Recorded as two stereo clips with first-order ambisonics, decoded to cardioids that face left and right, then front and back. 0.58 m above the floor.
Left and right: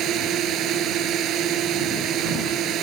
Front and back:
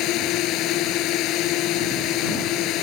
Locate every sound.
0.0 s a drone: 40° right